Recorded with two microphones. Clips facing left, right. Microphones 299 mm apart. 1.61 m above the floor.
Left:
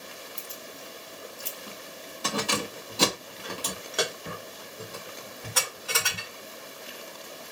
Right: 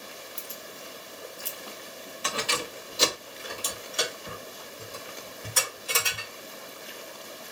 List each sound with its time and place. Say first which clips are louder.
0.4 s keys jangling: even; 5° right (ahead or behind), 1.5 m; by 6.3 s 75° left (ahead or behind), 4 m